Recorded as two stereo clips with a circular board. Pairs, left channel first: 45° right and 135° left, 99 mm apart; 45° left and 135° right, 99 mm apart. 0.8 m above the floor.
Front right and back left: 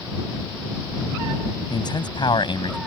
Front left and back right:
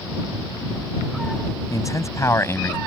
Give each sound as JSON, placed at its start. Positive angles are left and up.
{"t": 1.7, "sound": "a man speaking", "azimuth_deg": -5}